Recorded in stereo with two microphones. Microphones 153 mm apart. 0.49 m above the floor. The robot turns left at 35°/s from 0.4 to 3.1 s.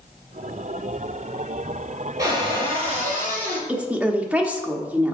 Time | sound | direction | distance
2.2 | a cupboard door | 20° right | 3 m
3.7 | a woman speaking | 10° right (ahead or behind) | 0.8 m